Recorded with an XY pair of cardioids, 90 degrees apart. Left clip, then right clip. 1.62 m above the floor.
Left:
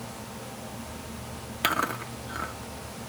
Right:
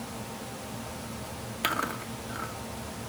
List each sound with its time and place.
1.6 s chewing: 30° left, 1.6 m